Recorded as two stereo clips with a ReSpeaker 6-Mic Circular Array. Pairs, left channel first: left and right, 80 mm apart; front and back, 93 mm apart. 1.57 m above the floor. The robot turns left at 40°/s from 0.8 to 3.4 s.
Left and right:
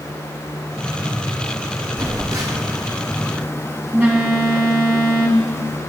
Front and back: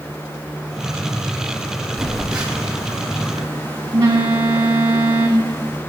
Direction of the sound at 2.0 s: 90° right.